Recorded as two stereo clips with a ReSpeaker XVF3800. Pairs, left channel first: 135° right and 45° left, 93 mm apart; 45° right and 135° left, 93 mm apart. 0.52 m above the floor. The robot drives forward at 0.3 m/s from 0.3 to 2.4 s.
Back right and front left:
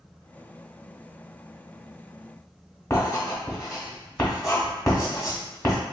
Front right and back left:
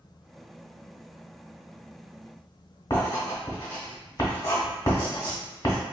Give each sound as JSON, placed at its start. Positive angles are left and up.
{"t": 2.9, "sound": "writing", "azimuth_deg": -90, "distance_m": 1.2}